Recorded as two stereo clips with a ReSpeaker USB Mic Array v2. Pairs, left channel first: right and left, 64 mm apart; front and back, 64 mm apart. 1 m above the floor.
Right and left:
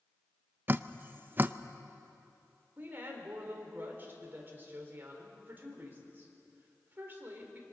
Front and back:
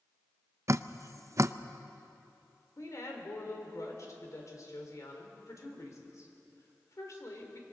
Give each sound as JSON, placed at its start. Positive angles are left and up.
{"t": 0.7, "sound": "dripping", "azimuth_deg": 145, "distance_m": 0.5}
{"t": 2.8, "sound": "a woman speaking", "azimuth_deg": 30, "distance_m": 4.0}